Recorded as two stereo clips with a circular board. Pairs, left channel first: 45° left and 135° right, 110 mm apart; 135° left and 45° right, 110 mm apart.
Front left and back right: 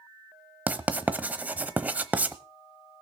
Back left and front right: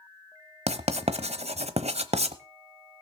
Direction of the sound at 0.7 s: 60° right.